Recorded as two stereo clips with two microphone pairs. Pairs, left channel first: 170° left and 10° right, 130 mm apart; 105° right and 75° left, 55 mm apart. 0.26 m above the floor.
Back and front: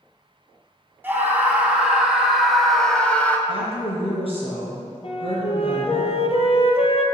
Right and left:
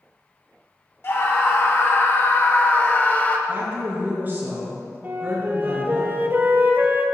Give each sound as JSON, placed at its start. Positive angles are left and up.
{"t": 1.0, "sound": "a scream", "azimuth_deg": -80, "distance_m": 2.5}
{"t": 3.5, "sound": "a woman speaking", "azimuth_deg": 130, "distance_m": 4.0}
{"t": 5.0, "sound": "a flute", "azimuth_deg": 130, "distance_m": 1.4}